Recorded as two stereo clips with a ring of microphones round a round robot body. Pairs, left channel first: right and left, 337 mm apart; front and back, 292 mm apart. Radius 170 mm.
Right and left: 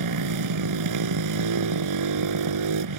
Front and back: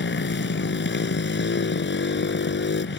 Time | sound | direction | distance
0.0 | a motorcycle | 55° left | ?